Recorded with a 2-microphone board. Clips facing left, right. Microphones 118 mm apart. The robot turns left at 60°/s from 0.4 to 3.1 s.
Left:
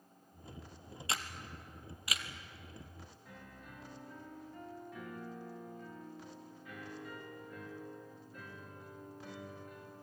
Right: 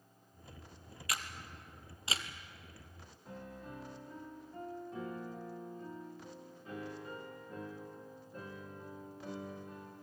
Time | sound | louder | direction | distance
1.1 | a camera shutter | left 1 dB | 30° left (ahead or behind) | 1.5 m
3.2 | a piano | right 9 dB | 35° right (ahead or behind) | 3 m